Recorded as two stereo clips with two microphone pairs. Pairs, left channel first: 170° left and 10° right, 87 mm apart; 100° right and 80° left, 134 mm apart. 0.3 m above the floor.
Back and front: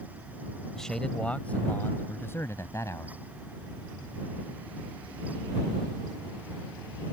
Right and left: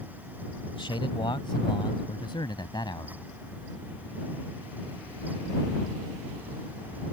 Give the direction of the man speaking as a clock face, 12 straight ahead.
4 o'clock.